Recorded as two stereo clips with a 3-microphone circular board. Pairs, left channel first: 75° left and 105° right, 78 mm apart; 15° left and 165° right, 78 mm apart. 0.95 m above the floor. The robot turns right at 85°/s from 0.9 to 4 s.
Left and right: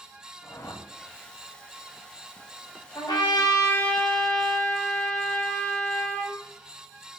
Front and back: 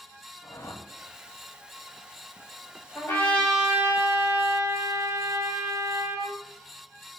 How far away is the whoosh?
About 1.7 m.